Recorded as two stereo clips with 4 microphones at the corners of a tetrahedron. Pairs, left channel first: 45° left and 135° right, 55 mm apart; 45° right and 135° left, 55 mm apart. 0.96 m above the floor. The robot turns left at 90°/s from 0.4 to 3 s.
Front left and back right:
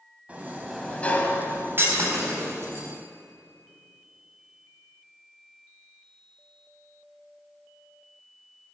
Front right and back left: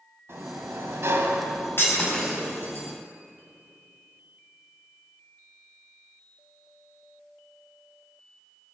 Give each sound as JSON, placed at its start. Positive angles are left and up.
{"t": 0.3, "sound": "a sliding door", "azimuth_deg": 165, "distance_m": 1.5}
{"t": 1.8, "sound": "breaking glass", "azimuth_deg": -90, "distance_m": 4.0}